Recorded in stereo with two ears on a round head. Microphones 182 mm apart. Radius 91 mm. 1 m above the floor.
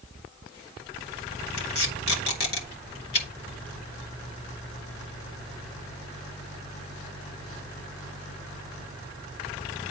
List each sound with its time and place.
1.6 s tape being pulled: 55° left (ahead or behind), 2.5 m